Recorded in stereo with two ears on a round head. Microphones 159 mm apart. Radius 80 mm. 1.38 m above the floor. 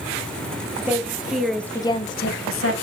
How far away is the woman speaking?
About 2 m.